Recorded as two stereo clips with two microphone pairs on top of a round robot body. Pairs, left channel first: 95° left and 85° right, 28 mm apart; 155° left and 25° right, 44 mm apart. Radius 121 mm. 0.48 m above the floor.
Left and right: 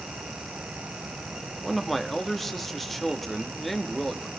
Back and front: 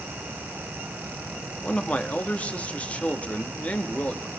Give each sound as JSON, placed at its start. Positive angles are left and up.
{"t": 1.6, "sound": "a man speaking", "azimuth_deg": 175, "distance_m": 1.2}